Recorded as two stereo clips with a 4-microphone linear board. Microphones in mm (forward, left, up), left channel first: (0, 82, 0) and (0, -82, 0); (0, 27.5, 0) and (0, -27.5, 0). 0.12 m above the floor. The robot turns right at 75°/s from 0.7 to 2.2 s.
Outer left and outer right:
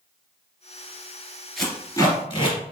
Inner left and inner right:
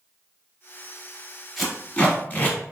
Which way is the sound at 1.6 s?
Centre (ahead or behind).